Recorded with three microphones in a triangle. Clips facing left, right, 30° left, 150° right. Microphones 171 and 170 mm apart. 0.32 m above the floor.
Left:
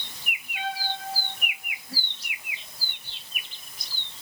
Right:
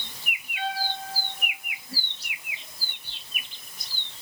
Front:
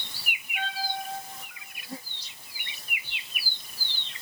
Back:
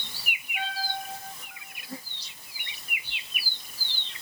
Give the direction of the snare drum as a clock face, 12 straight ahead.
No snare drum in this recording.